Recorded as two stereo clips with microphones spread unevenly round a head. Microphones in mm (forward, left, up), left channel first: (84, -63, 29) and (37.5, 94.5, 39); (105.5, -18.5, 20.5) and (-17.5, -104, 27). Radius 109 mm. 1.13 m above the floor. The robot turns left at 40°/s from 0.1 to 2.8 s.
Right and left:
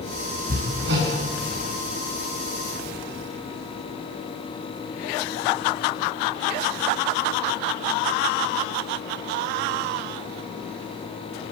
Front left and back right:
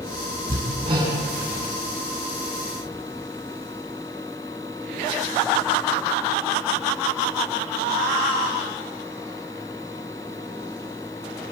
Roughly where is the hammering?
Behind.